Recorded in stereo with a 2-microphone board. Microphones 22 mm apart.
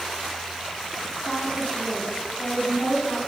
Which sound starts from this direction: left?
A woman speaking, at 1.2 s.